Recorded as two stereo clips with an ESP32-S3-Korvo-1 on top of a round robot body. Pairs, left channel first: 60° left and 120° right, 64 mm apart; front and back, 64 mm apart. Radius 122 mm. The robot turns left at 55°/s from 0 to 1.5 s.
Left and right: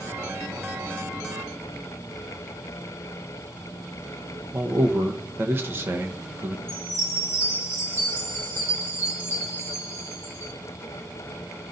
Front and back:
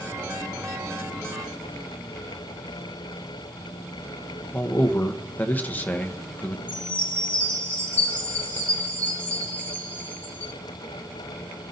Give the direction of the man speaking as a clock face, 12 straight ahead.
2 o'clock.